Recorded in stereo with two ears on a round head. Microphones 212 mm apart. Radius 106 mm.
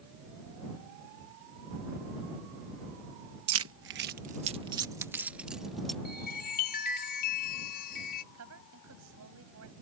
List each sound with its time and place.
3.5 s keys jangling: 70° right (ahead or behind); by 6.0 s centre (ahead or behind)
6.0 s a chime: 40° left (ahead or behind)
8.3 s a woman speaking: 65° right (ahead or behind)